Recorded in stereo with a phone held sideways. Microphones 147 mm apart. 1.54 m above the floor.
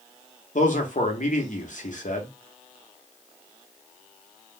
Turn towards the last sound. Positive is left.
turn(degrees=60)  # may be behind; listen again after turning